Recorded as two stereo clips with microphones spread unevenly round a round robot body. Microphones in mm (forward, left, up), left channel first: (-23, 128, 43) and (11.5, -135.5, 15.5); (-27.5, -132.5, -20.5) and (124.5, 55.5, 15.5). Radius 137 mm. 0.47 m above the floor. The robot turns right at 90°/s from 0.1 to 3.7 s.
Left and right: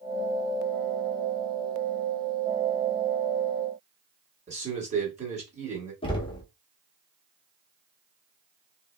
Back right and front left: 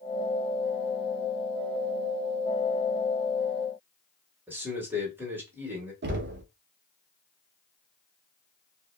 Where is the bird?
No bird in this recording.